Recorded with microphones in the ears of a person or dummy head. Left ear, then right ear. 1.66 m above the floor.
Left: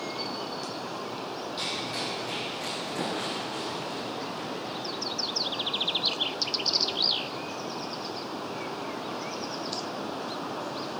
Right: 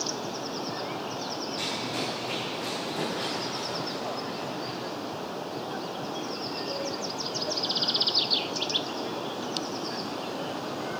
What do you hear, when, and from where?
1.6 s running footsteps: 25° left (ahead or behind), 3.5 m; by 4.8 s 50° left (ahead or behind), 6 m